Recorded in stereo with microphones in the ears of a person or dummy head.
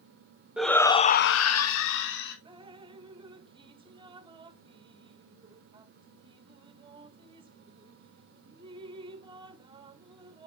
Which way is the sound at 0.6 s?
5° right (ahead or behind).